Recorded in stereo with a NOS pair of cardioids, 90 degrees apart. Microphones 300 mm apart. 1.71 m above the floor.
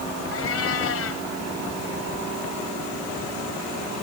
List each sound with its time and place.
0.3 s a cat meowing: 50° left